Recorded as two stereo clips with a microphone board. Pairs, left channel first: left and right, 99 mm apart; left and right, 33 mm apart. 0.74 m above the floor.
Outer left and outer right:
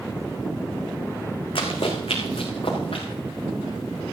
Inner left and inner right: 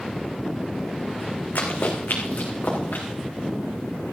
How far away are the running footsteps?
About 2.5 m.